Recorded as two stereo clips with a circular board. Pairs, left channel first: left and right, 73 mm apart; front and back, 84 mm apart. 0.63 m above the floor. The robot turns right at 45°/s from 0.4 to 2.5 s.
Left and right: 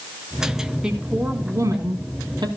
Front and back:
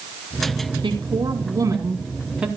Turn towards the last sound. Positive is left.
turn(degrees=-95)